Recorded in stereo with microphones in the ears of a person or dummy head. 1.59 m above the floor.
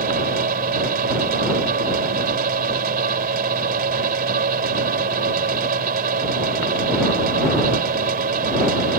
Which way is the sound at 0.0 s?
55° right (ahead or behind).